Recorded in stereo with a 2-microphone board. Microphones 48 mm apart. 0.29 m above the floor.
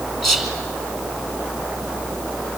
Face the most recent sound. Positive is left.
turn(degrees=0)  # may be behind; listen again after turning